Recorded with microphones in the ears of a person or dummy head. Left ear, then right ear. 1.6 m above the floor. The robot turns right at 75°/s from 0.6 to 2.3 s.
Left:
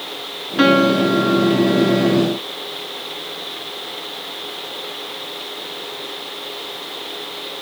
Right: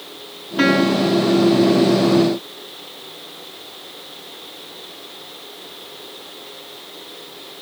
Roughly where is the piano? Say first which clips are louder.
Left 3 dB; ahead.